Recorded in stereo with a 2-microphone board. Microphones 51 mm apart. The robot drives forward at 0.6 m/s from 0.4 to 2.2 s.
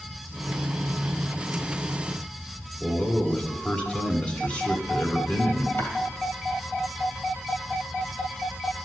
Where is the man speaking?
30° left (ahead or behind), 1.5 m.